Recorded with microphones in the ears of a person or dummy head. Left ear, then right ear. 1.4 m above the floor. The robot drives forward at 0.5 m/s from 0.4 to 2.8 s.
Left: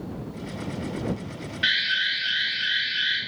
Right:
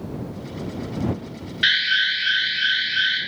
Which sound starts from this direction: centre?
An alarm, at 1.6 s.